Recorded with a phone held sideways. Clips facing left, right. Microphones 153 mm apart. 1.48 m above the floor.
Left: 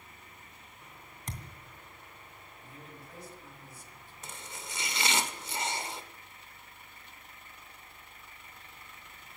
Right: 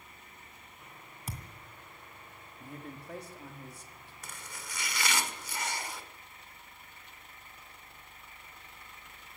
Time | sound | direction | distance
1.3 | a thud | 5° right (ahead or behind) | 2.5 m
2.6 | a man speaking | 65° right (ahead or behind) | 3 m
4.2 | chopping | 25° left (ahead or behind) | 1.7 m